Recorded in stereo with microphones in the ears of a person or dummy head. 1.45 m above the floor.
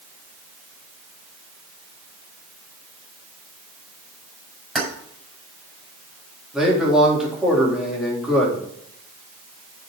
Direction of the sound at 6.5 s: 5° right (ahead or behind).